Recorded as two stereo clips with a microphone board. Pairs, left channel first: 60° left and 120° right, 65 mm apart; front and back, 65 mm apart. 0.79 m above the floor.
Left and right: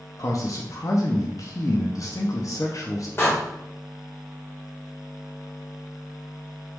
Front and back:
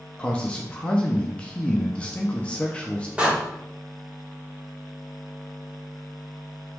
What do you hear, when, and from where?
0.2 s a man speaking: 70° left, 0.7 m
3.2 s a door slam: 110° left, 1.8 m